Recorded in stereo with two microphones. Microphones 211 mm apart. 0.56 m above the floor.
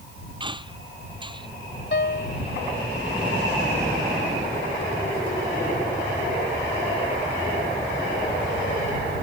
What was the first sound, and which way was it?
A squeak, 25° right (ahead or behind).